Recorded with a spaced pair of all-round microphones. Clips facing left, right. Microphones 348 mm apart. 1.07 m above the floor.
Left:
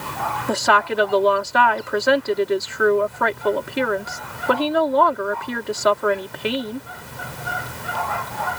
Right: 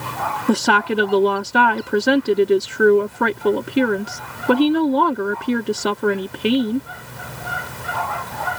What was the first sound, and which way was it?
A woman speaking, 40° right (ahead or behind).